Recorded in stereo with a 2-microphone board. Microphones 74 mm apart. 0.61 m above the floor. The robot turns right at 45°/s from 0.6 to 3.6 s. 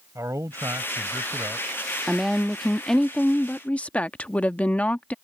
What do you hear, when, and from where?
0.1 s a man speaking: 135° right; by 1.7 s 85° right
2.1 s a woman speaking: 10° right (ahead or behind); by 5.1 s 15° left (ahead or behind)